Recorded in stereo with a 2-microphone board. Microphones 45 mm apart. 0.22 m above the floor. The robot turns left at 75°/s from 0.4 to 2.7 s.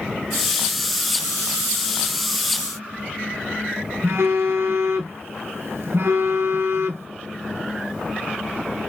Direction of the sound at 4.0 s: 80° right.